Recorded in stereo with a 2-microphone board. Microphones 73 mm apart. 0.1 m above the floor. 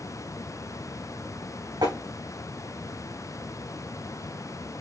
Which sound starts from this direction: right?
Tapping, at 1.8 s.